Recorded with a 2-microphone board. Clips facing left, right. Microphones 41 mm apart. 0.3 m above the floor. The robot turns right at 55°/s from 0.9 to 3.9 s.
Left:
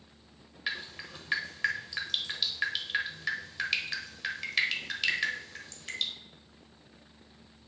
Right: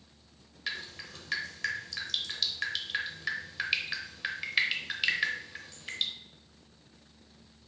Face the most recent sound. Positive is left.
turn(degrees=-10)  # may be behind; listen again after turning